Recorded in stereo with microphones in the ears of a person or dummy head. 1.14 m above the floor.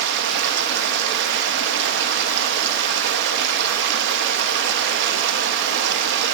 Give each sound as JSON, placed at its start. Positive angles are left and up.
{"t": 0.0, "sound": "running water", "side_deg": -70, "distance_m": 0.9}